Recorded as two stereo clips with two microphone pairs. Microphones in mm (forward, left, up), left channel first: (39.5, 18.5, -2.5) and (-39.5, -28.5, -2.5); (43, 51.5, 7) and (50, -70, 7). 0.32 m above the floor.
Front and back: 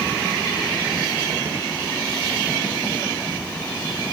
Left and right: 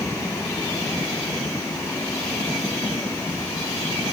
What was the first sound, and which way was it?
Only background noise.